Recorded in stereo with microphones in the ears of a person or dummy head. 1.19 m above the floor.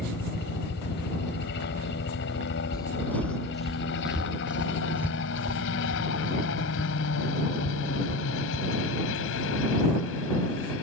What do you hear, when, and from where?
0.0 s a helicopter: 60° left (ahead or behind); by 10.8 s 80° left
2.7 s footsteps: 15° left (ahead or behind); by 9.1 s 15° right (ahead or behind)